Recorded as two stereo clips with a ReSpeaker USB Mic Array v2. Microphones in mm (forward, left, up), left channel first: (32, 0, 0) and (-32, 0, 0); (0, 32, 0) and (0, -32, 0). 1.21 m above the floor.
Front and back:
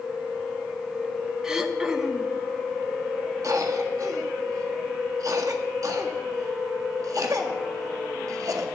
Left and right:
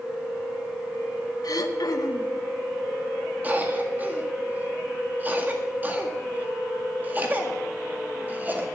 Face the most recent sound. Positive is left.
turn(degrees=-150)